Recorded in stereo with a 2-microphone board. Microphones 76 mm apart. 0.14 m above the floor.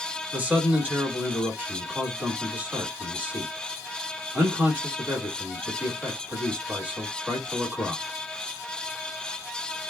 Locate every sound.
0.3 s a man speaking: 20° right (ahead or behind), 1.7 m